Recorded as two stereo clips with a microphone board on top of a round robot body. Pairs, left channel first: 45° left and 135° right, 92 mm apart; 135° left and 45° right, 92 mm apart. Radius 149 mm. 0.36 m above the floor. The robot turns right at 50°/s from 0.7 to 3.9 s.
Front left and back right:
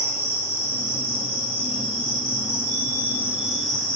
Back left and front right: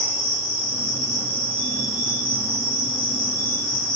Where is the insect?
170° left, 5 m; by 4.0 s 30° right, 5 m.